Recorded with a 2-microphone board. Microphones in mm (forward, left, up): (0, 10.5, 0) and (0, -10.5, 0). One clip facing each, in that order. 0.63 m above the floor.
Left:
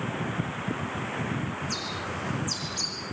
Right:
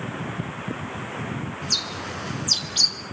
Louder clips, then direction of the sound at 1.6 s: Right 6 dB; 50° right (ahead or behind).